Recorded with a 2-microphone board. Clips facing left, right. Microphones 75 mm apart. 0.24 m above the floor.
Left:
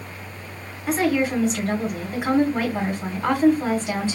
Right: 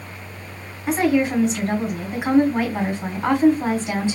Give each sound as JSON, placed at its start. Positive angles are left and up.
{"t": 0.9, "sound": "a woman speaking", "side_deg": -10, "distance_m": 2.0}